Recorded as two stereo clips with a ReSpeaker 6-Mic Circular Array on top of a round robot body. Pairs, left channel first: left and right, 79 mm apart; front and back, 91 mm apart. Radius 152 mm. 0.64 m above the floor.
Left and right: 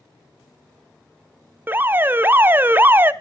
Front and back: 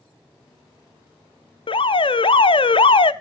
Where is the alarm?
25° right, 0.7 m.